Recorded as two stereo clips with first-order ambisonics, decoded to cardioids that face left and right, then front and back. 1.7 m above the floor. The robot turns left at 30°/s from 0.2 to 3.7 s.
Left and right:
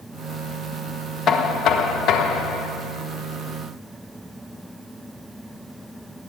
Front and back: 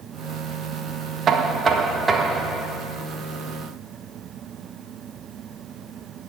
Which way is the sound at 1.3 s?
130° left.